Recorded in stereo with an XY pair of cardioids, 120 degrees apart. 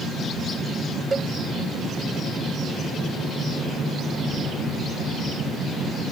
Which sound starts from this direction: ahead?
A cowbell, at 1.1 s.